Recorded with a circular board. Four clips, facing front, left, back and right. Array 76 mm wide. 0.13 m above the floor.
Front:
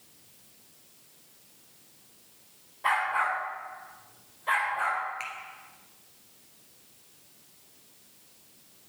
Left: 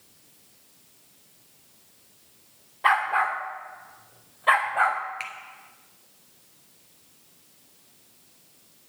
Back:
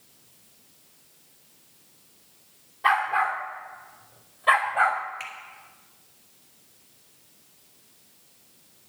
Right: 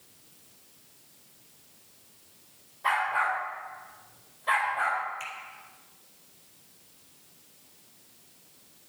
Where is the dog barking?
105° left, 3.5 m; by 5.0 s 130° left, 2.5 m.